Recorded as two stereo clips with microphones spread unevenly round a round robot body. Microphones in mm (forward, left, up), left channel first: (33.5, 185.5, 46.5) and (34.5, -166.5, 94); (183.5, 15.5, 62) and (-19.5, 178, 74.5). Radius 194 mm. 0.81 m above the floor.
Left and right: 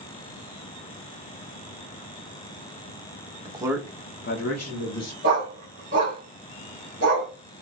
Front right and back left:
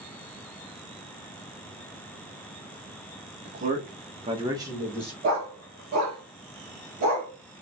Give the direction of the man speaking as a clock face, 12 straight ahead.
5 o'clock.